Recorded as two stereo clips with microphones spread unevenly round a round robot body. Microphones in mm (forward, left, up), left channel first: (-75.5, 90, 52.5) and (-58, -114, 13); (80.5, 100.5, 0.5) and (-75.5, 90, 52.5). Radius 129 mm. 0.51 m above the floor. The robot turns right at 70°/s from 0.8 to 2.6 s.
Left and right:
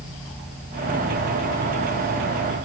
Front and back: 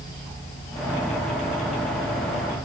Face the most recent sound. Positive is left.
No sound to turn to.